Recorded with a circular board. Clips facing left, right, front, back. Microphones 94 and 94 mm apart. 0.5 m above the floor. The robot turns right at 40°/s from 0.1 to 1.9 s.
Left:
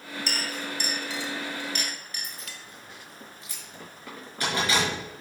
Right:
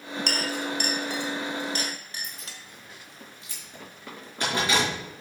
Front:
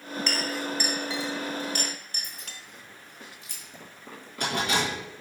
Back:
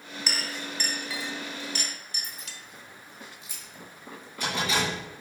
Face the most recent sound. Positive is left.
turn(degrees=-25)